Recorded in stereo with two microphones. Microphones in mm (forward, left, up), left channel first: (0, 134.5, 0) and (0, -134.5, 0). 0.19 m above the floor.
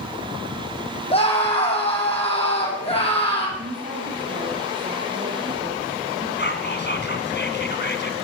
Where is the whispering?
40° left (ahead or behind), 2.0 m.